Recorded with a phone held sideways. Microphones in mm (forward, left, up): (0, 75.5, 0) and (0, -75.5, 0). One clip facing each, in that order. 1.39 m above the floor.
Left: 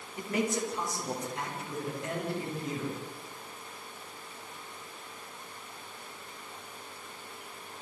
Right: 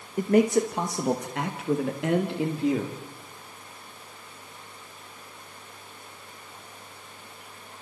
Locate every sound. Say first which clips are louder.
0.2 s a man speaking: right 11 dB; 50° right (ahead or behind), 1.9 m; by 3.0 s 85° right, 4 m